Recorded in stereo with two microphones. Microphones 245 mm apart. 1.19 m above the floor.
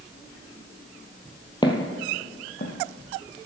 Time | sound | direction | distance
1.6 | footsteps | 20° left (ahead or behind) | 1.3 m